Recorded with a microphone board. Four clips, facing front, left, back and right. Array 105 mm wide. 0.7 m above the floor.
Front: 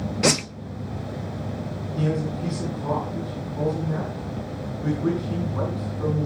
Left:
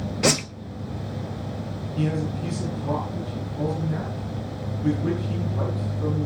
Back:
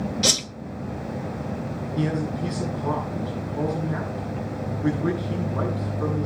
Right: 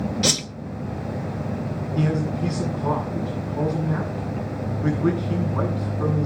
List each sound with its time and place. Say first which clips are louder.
0.2 s a whoosh: left 3 dB, front 5 dB; 35° left, 0.9 m
1.9 s a man speaking: right 3 dB, even; 90° right, 9 m